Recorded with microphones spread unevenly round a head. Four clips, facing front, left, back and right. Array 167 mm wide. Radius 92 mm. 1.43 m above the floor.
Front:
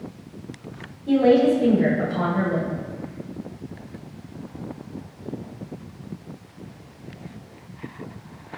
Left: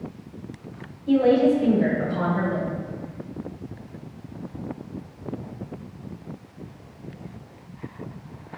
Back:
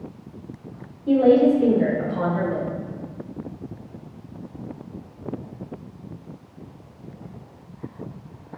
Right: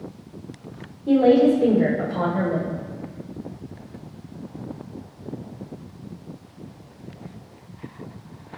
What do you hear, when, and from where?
1.1 s a woman speaking: 120° right, 4.5 m